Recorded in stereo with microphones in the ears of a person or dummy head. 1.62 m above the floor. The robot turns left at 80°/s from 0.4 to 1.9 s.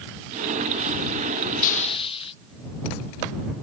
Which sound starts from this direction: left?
A hiss, at 1.6 s.